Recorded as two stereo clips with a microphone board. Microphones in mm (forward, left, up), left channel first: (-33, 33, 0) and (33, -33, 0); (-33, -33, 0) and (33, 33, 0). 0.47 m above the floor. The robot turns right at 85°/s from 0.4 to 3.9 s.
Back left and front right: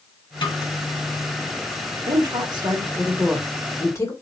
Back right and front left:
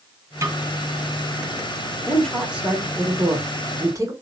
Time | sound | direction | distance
0.4 | a snare drum | 105° left | 2 m
2.1 | a woman speaking | 70° right | 1.7 m